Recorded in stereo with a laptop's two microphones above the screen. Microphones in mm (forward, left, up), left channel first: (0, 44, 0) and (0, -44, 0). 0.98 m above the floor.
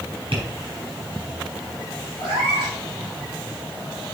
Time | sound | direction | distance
0.3 | tapping | 85° right | 3.5 m
2.2 | a cat meowing | 45° right (ahead or behind) | 4.5 m